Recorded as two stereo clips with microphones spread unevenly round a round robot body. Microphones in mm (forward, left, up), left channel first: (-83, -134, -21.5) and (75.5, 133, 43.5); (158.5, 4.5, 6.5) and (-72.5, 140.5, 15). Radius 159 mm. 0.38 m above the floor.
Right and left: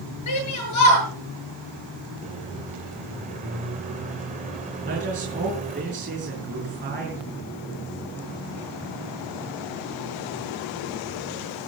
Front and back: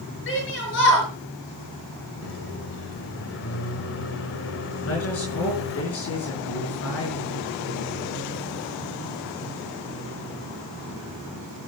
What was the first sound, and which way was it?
A shout, 85° right.